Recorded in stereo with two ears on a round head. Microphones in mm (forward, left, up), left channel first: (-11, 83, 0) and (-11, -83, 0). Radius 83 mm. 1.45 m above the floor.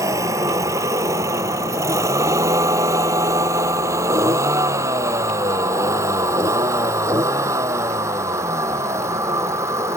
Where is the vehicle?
15° right (ahead or behind).